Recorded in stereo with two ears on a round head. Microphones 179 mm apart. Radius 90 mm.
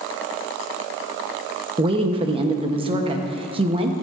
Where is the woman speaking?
30° right (ahead or behind), 0.9 m.